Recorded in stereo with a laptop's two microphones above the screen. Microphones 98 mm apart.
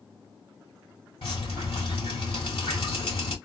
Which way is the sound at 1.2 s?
70° left (ahead or behind).